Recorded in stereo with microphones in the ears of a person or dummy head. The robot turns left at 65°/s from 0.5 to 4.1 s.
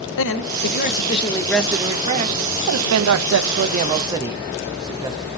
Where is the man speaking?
70° left, 0.9 m; by 5.3 s 165° right, 0.9 m.